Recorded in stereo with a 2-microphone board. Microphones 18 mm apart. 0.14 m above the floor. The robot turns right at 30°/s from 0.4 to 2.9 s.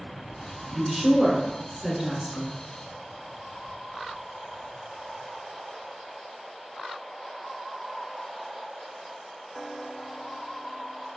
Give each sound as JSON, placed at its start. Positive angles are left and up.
{"t": 0.7, "sound": "a woman speaking", "azimuth_deg": -50, "distance_m": 1.3}